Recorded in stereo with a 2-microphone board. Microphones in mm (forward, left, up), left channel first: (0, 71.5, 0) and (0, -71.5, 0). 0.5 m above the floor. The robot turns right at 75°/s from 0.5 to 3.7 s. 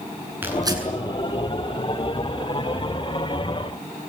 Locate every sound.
0.4 s tearing paper: 15° right (ahead or behind), 7 m; by 0.8 s 40° right (ahead or behind), 7 m